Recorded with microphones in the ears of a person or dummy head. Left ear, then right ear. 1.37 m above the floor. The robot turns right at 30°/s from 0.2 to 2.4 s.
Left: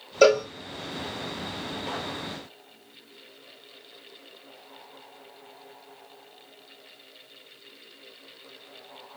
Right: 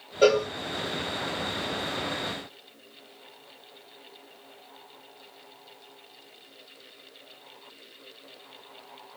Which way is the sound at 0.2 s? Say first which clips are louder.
Left 2 dB; 55° left (ahead or behind).